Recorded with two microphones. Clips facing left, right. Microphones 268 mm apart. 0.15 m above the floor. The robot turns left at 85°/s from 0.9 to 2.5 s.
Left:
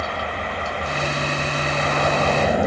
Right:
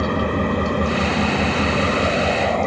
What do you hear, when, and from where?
0.0 s an engine running: 55° right; by 2.7 s 170° left